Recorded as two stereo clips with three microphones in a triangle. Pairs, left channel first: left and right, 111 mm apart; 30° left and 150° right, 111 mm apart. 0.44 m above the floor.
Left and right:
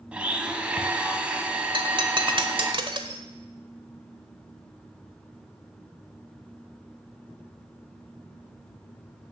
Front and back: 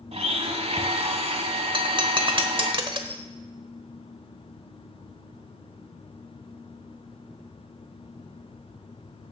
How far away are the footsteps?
I don't hear footsteps.